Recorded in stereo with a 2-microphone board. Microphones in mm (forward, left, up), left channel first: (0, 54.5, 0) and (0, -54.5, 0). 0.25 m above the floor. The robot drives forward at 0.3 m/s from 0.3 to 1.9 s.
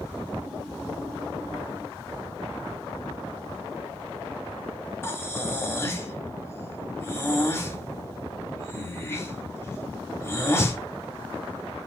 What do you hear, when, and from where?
5.0 s breathing: 25° left (ahead or behind), 1.1 m